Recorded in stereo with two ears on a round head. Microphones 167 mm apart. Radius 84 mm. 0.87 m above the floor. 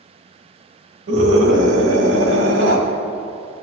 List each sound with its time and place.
1.1 s a scream: 80° right, 4.5 m; by 2.8 s 85° right, 5.5 m